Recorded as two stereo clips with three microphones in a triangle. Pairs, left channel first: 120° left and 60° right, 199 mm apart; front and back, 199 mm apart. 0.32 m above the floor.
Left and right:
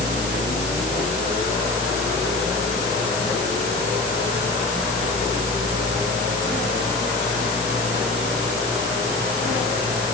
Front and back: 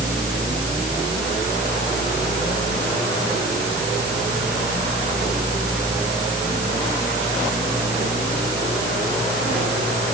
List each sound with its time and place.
Only background noise.